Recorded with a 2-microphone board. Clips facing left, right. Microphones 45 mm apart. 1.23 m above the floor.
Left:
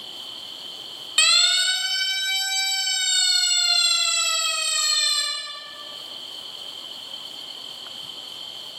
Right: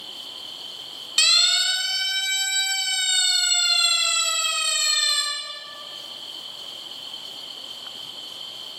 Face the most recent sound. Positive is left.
turn(degrees=-35)  # may be behind; listen again after turning